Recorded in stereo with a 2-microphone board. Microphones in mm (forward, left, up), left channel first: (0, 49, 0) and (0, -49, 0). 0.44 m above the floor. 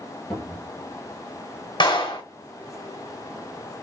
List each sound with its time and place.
0.3 s a cupboard door: 10° left (ahead or behind), 2.5 m
1.8 s a clap: 55° left (ahead or behind), 1.6 m